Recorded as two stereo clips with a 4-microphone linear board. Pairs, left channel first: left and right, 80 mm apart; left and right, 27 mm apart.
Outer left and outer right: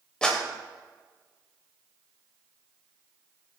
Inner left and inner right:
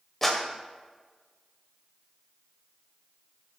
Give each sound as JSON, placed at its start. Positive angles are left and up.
{"t": 0.2, "sound": "a clap", "side_deg": 10, "distance_m": 2.5}